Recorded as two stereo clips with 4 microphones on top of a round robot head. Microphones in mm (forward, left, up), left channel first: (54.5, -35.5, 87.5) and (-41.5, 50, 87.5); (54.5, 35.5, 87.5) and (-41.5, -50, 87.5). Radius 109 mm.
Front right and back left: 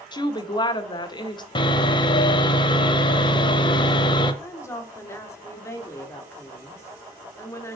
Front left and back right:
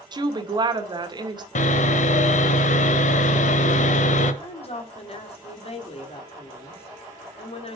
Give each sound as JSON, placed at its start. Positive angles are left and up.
{"t": 0.1, "sound": "a woman speaking", "azimuth_deg": -90, "distance_m": 1.6}
{"t": 1.6, "sound": "sawing", "azimuth_deg": 15, "distance_m": 1.0}
{"t": 4.4, "sound": "a woman speaking", "azimuth_deg": 20, "distance_m": 1.9}